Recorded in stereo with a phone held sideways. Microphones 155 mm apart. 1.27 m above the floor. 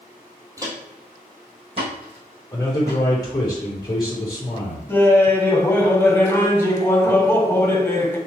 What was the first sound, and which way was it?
Footsteps, 20° right (ahead or behind).